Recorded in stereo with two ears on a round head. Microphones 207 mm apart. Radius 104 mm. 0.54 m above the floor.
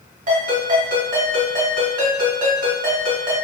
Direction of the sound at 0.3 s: 35° right (ahead or behind).